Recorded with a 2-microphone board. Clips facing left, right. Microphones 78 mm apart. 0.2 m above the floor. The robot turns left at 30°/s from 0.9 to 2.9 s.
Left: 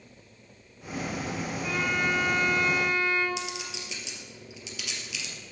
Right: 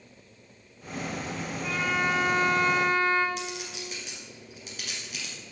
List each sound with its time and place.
1.6 s a violin: straight ahead, 2.5 m; by 3.3 s 40° right, 2.5 m
3.4 s a clink: 40° right (ahead or behind), 2.5 m